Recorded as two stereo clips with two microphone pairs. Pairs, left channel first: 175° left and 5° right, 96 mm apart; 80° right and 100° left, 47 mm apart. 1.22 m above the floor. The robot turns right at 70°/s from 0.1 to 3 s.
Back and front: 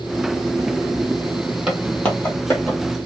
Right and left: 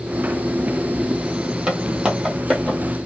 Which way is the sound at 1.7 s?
60° left.